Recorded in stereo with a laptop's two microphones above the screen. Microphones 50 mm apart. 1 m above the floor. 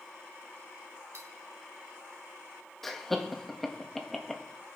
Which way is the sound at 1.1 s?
85° right.